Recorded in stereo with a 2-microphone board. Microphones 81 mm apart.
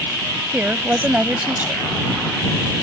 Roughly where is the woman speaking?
Right.